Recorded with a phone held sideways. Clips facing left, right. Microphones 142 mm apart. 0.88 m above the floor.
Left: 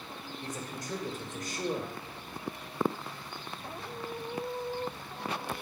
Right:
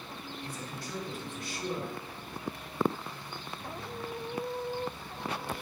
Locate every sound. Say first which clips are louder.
0.4 s a man speaking: left 4 dB; 45° left (ahead or behind), 1.3 m